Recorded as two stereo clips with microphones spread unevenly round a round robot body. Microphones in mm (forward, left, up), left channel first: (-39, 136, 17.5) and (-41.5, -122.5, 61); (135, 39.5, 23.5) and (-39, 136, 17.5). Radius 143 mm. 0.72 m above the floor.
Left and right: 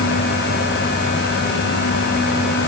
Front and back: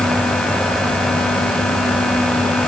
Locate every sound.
Only background noise.